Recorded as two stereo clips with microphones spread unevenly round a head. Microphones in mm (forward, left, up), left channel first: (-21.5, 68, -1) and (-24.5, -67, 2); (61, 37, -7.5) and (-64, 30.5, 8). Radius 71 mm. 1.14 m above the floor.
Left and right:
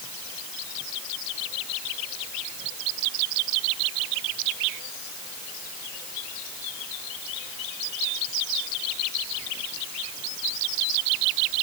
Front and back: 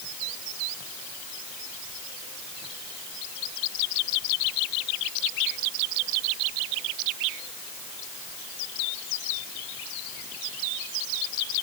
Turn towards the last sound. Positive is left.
No sound to turn to.